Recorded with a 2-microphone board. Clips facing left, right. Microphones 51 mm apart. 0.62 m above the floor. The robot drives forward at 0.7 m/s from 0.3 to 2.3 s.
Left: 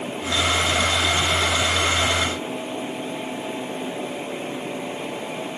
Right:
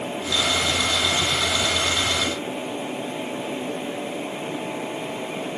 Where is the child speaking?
I don't hear a child speaking.